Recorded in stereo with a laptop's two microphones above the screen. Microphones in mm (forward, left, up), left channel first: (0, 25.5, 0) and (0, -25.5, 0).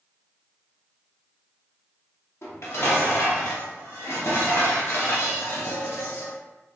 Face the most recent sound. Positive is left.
turn(degrees=60)  # may be behind; listen again after turning